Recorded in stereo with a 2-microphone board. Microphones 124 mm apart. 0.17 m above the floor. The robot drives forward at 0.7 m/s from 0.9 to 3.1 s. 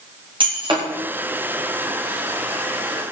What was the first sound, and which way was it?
Breaking glass, 40° right (ahead or behind).